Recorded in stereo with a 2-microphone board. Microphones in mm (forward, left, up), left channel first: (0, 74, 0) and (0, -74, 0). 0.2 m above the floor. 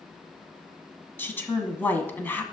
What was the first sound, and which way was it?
A woman speaking, 15° left (ahead or behind).